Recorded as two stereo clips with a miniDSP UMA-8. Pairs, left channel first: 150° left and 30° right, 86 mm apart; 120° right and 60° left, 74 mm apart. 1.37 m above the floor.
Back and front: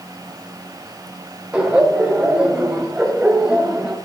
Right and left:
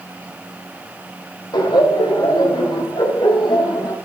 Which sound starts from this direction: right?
Laughter, at 1.5 s.